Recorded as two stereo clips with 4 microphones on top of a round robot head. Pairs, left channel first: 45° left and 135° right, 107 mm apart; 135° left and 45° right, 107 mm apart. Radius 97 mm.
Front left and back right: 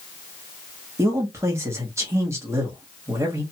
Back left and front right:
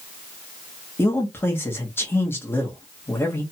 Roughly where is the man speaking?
Behind.